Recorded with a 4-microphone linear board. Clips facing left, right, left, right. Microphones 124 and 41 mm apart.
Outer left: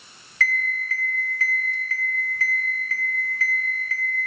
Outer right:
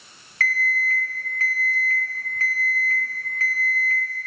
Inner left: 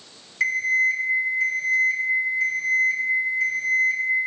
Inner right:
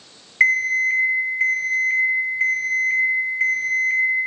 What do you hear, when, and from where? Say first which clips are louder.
0.4 s an alarm clock: outer right 2 dB, inner right 3 dB; 45° right (ahead or behind), 0.8 m